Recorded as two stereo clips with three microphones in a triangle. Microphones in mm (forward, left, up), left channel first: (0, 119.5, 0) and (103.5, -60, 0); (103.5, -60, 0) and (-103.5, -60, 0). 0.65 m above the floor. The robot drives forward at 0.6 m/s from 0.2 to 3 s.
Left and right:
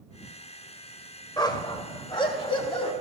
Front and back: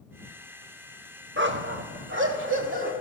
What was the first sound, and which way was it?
A dog barking, 175° right.